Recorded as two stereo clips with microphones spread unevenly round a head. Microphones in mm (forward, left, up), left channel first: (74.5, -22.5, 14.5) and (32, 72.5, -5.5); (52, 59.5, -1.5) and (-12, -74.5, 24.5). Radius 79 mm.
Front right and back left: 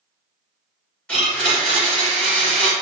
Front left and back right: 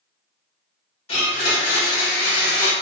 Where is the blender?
20° left, 1.9 m.